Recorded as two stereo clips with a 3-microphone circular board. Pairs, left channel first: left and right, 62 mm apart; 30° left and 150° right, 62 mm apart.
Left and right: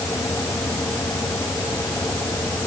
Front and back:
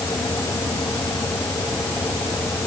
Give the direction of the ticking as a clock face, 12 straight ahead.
No ticking in this recording.